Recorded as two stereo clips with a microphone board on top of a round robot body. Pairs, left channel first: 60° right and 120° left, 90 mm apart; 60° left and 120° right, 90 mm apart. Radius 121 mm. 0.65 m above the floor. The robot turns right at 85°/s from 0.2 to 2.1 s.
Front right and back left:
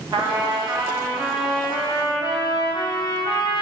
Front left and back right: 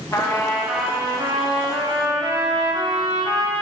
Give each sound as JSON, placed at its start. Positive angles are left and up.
{"t": 0.1, "sound": "a trumpet", "azimuth_deg": 110, "distance_m": 2.0}